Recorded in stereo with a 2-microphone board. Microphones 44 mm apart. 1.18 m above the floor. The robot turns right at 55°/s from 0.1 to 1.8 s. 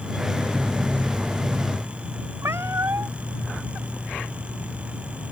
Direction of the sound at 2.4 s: 70° right (ahead or behind).